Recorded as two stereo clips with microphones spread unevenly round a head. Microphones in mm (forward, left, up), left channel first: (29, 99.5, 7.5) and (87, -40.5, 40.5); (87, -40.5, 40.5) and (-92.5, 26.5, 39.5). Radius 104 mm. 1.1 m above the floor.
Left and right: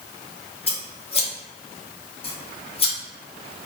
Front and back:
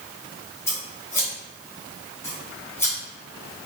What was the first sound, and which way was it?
Scissors, 55° left.